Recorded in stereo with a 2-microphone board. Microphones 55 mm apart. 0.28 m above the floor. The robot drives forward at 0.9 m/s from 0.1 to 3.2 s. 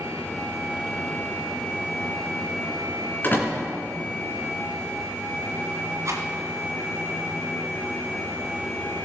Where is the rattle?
60° right (ahead or behind), 1.7 m.